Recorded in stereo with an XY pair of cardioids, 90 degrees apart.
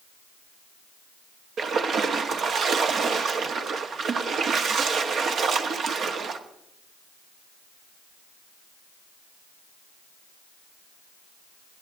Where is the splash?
65° right, 1.2 m.